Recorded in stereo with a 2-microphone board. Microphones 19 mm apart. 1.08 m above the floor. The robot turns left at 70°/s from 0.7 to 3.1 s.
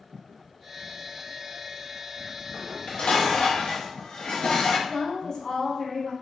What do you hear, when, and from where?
2.5 s dishes clattering: 130° left, 0.7 m; by 4.8 s 90° left, 0.7 m
4.9 s a woman speaking: 45° left (ahead or behind), 0.9 m